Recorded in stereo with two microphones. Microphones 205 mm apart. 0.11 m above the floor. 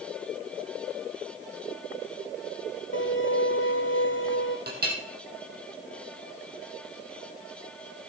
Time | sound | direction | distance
2.9 | a violin | 75° left (ahead or behind) | 0.9 m
4.7 | a clink | 50° right (ahead or behind) | 2 m